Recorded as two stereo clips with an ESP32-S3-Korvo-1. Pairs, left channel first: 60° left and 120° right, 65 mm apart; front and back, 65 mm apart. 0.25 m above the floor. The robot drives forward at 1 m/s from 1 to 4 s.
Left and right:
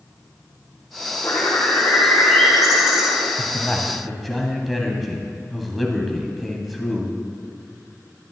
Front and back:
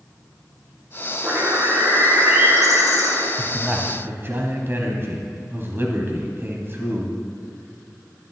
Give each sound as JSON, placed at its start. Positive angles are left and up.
{"t": 1.2, "sound": "a bird", "azimuth_deg": 125, "distance_m": 1.5}
{"t": 3.4, "sound": "a man speaking", "azimuth_deg": 105, "distance_m": 1.0}